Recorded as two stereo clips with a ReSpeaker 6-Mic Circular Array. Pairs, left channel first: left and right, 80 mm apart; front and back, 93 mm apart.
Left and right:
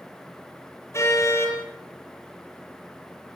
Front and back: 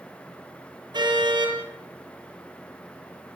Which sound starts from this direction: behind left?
A car horn, at 0.9 s.